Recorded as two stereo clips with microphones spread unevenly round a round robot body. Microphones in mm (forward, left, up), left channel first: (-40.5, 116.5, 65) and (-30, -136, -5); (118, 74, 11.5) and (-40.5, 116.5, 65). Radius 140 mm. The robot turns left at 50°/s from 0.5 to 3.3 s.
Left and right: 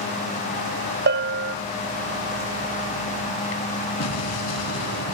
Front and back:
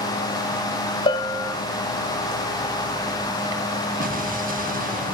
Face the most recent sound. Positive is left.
turn(degrees=125)